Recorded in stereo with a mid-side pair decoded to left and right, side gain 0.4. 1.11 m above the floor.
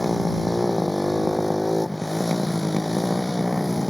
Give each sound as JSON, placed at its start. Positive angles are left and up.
{"t": 0.0, "sound": "a motorcycle", "azimuth_deg": 10}